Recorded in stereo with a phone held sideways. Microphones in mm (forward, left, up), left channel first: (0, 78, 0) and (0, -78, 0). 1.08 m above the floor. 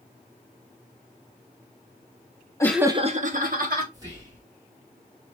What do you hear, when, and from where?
2.6 s laughter: 20° left (ahead or behind), 0.5 m; by 3.8 s 70° right (ahead or behind), 1.6 m
3.9 s whispering: 25° right (ahead or behind), 1.0 m